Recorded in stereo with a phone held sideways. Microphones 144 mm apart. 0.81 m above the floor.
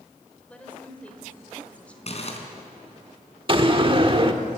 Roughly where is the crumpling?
Left.